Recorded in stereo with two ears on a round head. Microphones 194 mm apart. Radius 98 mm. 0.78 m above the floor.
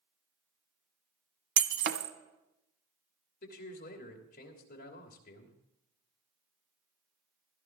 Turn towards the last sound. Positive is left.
turn(degrees=45)  # may be behind; listen again after turning